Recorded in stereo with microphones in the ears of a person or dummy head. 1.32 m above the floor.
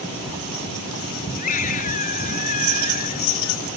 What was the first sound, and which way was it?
A scream, 45° left (ahead or behind).